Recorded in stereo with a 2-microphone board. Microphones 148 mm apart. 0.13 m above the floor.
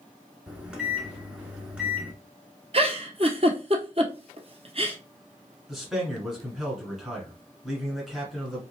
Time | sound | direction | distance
0.5 | a microwave | 5° right (ahead or behind) | 1.0 m
2.7 | a giggle | 45° right (ahead or behind) | 0.9 m
5.7 | a man speaking | centre (ahead or behind) | 1.6 m